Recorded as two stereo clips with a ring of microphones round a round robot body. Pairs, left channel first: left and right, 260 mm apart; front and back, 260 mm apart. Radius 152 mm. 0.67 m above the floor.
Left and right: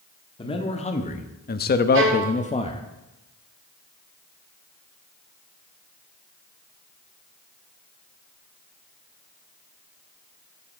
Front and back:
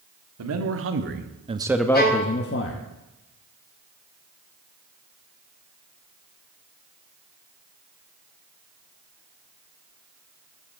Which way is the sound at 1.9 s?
50° right.